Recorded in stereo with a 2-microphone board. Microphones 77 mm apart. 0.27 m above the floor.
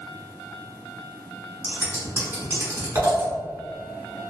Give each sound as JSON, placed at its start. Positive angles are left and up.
{"t": 1.6, "sound": "scissors", "side_deg": -35, "distance_m": 1.4}